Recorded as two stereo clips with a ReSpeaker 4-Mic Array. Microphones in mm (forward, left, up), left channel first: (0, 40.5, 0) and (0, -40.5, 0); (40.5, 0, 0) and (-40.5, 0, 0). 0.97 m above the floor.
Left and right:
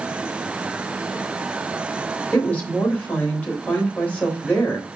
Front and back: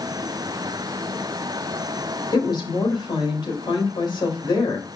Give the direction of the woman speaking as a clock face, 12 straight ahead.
11 o'clock.